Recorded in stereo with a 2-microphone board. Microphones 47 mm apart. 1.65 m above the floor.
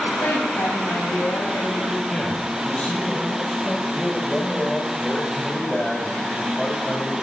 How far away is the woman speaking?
About 8 m.